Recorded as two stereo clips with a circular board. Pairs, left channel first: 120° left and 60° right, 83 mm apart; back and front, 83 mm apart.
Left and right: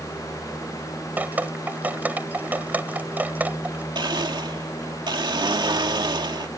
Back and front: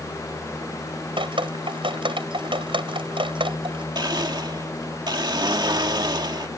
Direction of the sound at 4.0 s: 30° right.